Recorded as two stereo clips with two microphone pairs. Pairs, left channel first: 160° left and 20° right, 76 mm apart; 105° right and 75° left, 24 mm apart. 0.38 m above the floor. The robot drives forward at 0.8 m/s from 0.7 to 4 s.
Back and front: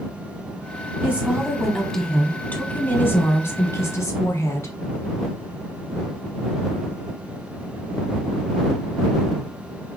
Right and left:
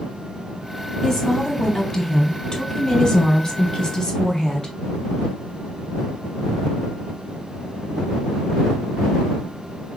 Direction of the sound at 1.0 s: 55° right.